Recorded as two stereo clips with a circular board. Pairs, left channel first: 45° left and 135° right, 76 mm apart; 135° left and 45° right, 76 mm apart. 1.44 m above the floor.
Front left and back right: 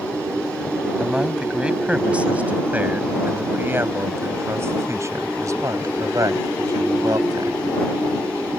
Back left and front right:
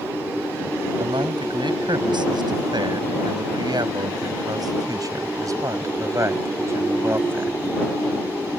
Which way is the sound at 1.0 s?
55° right.